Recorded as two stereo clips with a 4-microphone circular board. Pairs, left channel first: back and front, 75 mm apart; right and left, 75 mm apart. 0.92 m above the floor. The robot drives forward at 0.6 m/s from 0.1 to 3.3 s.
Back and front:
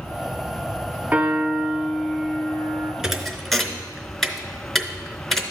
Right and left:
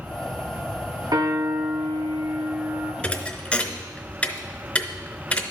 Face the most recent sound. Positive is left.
turn(degrees=-95)